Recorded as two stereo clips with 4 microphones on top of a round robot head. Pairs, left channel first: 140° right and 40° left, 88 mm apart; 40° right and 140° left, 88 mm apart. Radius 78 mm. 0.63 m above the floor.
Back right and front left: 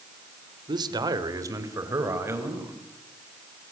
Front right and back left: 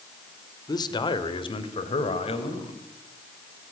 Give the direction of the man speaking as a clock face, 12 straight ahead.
12 o'clock.